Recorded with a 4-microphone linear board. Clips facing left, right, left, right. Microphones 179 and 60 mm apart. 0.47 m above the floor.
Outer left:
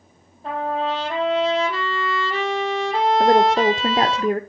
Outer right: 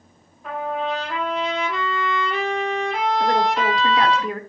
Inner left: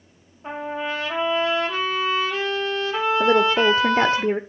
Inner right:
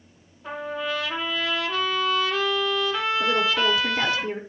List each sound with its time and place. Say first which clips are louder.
0.4 s a trumpet: outer left 2 dB, inner left 1 dB; 30° left (ahead or behind), 3.5 m
3.2 s a woman speaking: outer left 6 dB, inner left 7 dB; 45° left (ahead or behind), 1.0 m